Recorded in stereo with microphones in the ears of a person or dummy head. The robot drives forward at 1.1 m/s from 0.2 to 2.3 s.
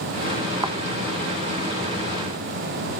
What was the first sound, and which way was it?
A thud, 20° right (ahead or behind).